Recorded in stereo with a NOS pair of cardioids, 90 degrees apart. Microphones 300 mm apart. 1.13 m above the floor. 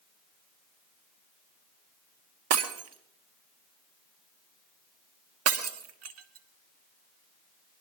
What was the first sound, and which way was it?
Breaking glass, 60° right.